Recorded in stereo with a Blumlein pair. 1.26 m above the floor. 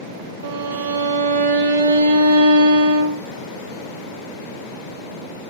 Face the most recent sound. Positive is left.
turn(degrees=-65)